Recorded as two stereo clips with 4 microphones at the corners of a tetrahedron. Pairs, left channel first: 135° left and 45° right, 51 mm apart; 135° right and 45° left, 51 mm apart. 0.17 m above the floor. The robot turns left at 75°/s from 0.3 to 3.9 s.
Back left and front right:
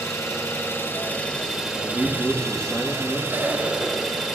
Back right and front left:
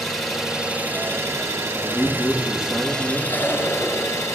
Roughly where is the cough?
Right.